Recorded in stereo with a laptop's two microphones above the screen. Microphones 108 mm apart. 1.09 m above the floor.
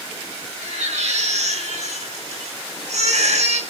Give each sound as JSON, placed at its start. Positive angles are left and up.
{"t": 0.6, "sound": "a baby crying", "side_deg": -80, "distance_m": 6.5}